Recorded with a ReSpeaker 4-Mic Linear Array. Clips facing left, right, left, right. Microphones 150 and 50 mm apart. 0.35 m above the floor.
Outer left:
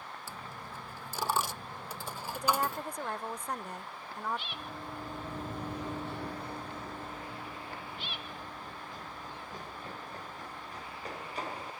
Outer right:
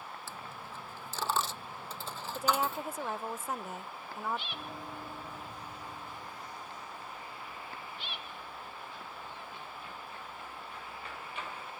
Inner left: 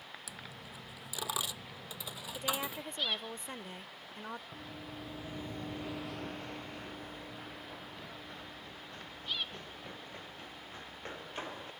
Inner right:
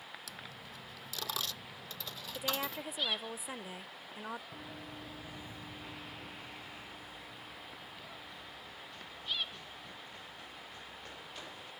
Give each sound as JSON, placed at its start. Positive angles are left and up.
{"t": 0.3, "sound": "a dropped coin", "side_deg": 10}
{"t": 2.4, "sound": "a woman speaking", "side_deg": -5}
{"t": 4.5, "sound": "running footsteps", "side_deg": -5}